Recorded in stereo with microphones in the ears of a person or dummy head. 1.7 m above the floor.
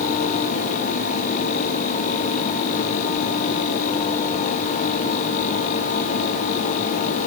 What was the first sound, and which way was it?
Only background noise.